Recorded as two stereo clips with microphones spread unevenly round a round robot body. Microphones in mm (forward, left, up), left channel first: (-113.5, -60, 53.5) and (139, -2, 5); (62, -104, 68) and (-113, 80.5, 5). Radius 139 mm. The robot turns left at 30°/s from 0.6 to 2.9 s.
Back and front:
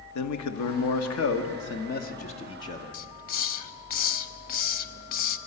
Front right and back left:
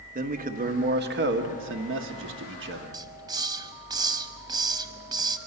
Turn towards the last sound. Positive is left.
turn(degrees=-140)